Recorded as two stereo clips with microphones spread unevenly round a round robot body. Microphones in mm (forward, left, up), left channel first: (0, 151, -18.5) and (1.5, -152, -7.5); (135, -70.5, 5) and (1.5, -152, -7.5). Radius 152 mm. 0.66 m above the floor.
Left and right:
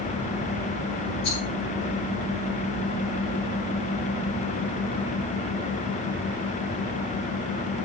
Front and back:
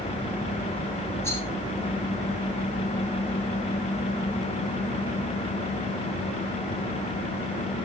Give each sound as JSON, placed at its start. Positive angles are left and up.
{"t": 1.2, "sound": "a rattle", "azimuth_deg": 130, "distance_m": 5.0}